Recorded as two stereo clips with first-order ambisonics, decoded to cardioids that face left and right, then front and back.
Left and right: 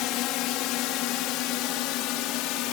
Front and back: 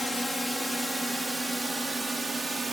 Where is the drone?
85° left; by 2.8 s 100° left.